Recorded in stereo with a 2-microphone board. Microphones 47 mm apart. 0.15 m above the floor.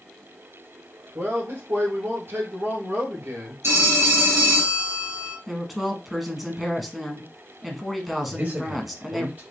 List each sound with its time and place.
1.1 s a man speaking: 55° right (ahead or behind), 2.5 m
3.6 s a phone ringing: 65° right (ahead or behind), 1.6 m
5.5 s a woman speaking: centre (ahead or behind), 1.2 m
8.3 s a man speaking: 40° right (ahead or behind), 3 m